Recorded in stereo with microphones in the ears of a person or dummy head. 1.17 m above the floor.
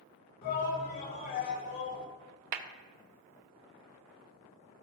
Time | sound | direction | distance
0.4 | a shout | 60° left (ahead or behind) | 4.5 m
2.5 | a clap | 50° right (ahead or behind) | 0.9 m